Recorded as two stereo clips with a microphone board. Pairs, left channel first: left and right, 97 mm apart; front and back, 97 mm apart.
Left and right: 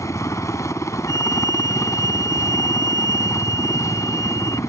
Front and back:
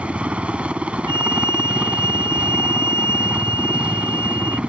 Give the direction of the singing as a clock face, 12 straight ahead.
I don't hear singing.